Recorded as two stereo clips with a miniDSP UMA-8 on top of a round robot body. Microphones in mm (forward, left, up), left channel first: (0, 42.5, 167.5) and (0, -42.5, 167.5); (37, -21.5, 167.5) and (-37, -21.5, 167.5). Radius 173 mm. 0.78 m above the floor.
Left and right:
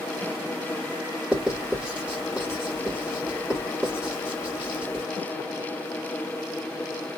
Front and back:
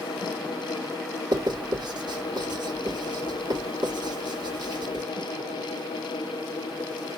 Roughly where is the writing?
Behind.